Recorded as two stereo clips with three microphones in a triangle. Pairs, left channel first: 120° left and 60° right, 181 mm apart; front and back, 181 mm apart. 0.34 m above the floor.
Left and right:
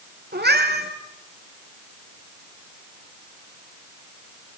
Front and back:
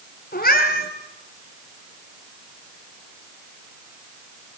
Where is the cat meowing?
35° right, 3.5 m.